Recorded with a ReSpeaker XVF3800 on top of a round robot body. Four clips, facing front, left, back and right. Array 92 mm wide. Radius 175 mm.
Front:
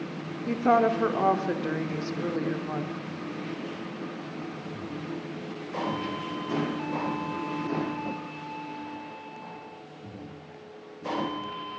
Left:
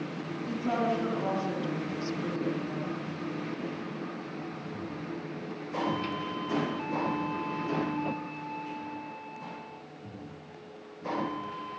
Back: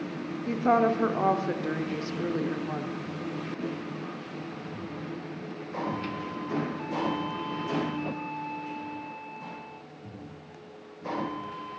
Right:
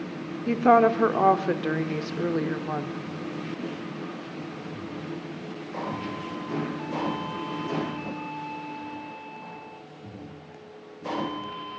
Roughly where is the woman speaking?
Right.